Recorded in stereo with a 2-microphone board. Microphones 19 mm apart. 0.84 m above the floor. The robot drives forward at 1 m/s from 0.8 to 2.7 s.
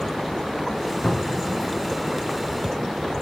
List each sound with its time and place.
1.0 s a cupboard door: 80° left, 3 m; by 1.5 s 75° left (ahead or behind), 3 m